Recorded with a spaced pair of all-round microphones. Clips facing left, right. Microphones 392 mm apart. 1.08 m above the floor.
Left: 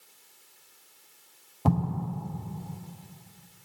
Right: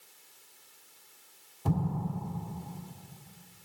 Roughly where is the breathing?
I don't hear breathing.